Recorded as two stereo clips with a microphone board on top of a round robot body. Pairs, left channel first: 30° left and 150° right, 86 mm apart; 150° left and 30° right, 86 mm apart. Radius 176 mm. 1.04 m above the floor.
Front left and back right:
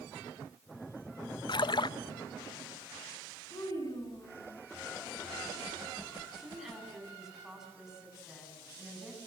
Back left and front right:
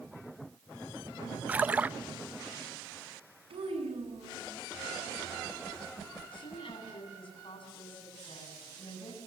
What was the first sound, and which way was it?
A splash, 40° left.